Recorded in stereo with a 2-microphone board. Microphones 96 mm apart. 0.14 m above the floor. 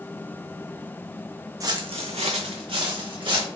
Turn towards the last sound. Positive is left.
turn(degrees=-55)  # may be behind; listen again after turning